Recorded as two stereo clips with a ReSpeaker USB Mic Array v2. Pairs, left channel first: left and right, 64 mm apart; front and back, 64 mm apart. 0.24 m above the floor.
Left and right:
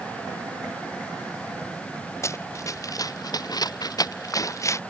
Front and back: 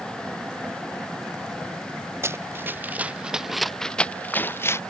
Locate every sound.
2.2 s running footsteps: 130° left; by 4.8 s 50° left